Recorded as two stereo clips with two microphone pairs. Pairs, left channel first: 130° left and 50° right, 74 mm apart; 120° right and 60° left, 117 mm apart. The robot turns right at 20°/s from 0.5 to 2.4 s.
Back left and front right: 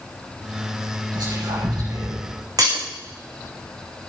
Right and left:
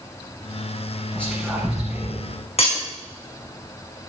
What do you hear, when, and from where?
1.1 s whispering: 40° right, 9.5 m; by 2.2 s 15° right, 9.5 m
2.6 s breaking glass: 85° right, 6.5 m